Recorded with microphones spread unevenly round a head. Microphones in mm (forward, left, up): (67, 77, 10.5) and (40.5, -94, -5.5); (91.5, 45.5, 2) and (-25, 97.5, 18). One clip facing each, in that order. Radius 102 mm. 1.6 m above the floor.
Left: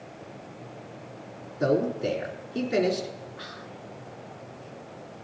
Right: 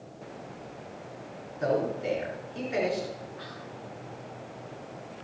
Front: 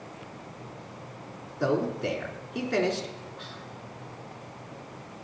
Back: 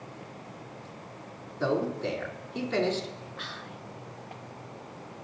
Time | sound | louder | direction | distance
1.6 | a man speaking | left 3 dB, front 1 dB | 60° left | 4 m
3.4 | whispering | even, even | 135° left | 0.5 m